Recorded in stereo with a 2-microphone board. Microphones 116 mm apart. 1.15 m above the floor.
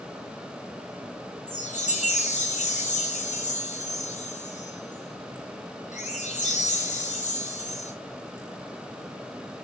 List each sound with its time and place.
1.5 s a chime: 80° left, 6 m